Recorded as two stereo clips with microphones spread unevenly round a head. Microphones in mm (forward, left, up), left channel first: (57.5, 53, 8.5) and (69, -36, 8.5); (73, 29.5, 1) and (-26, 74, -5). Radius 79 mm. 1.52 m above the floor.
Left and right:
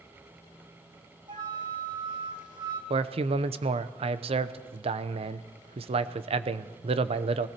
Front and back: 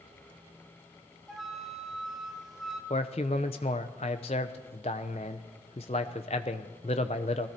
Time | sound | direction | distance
1.3 | a flute | 110° right | 1.1 m
2.9 | a man speaking | 75° right | 0.7 m